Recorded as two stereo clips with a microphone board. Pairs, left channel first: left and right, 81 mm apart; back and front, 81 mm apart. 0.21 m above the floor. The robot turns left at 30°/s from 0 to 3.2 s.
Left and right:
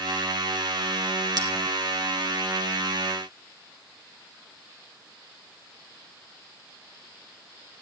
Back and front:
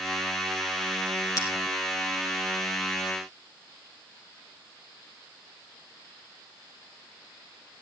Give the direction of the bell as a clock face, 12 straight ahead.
4 o'clock.